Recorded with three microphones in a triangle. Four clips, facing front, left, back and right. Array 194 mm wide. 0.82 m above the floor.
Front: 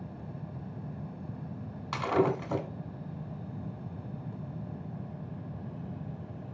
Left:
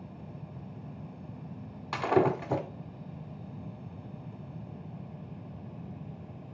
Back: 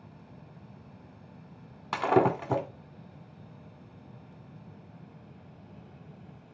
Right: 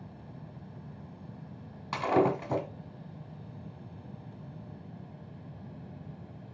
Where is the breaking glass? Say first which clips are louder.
Even, back 3 dB; straight behind, 1.6 m.